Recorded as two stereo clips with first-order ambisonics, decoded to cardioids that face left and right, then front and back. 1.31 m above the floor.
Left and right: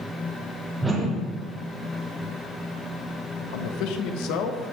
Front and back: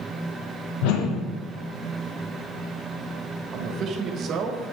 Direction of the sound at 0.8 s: 10° right.